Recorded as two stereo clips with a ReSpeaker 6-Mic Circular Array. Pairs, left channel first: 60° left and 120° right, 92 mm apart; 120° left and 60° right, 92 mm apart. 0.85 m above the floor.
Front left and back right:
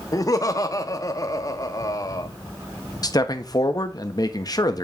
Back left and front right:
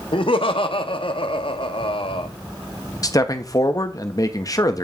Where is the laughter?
110° left, 1.2 m.